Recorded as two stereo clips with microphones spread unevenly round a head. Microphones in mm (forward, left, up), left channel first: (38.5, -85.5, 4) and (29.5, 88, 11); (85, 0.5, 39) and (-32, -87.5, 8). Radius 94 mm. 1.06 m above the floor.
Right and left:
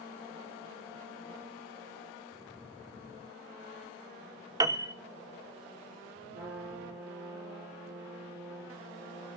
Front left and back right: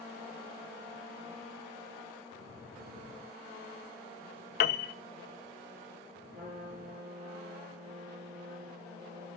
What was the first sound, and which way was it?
A piano, 20° left.